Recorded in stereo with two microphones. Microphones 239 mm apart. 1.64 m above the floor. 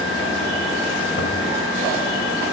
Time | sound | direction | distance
1.2 | a toilet flushing | 75° left (ahead or behind) | 1.8 m